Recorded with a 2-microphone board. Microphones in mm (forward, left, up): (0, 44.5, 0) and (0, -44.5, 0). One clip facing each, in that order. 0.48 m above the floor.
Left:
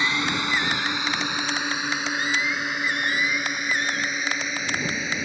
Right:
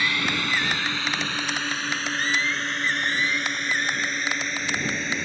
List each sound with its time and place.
0.0 s a drone: 20° left (ahead or behind); by 5.2 s 5° left (ahead or behind)